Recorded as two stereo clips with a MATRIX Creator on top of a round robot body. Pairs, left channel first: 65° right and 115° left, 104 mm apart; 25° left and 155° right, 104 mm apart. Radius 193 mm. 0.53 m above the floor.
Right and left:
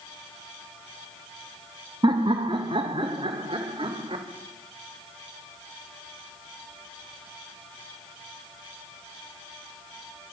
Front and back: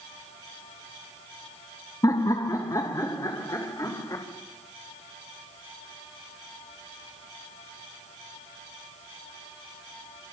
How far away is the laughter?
About 1.5 m.